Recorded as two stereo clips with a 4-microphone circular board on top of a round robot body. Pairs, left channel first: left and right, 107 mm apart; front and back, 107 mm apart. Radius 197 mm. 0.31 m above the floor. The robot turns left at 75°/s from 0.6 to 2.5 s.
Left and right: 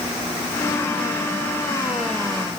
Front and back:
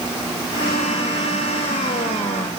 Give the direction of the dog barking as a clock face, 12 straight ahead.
No dog barking in this recording.